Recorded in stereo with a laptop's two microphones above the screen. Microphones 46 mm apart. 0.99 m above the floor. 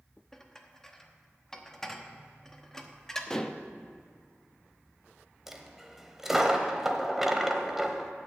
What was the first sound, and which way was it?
Dishes clattering, 10° left (ahead or behind).